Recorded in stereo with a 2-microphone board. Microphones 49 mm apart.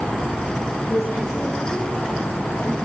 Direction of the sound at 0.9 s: 80° left.